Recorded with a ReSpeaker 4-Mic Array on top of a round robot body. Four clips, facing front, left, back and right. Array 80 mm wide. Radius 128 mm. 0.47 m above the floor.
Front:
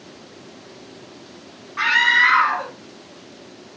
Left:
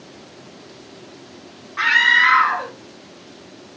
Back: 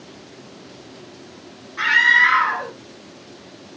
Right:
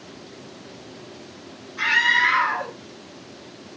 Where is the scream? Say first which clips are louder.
Left 4 dB, back 1 dB; 45° left, 5.5 m.